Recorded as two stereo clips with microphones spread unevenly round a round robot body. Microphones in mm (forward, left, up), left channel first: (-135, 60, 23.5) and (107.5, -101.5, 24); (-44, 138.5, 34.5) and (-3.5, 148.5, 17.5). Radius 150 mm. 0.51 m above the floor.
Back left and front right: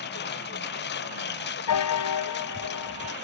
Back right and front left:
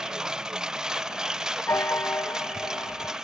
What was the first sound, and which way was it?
A lawn mower, 90° left.